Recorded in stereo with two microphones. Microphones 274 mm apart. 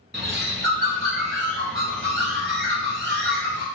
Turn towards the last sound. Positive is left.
turn(degrees=-45)  # may be behind; listen again after turning